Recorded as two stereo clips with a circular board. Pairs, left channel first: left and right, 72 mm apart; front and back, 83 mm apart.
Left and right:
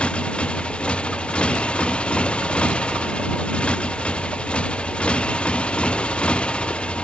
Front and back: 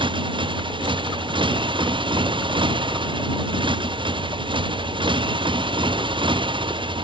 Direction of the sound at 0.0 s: 165° left.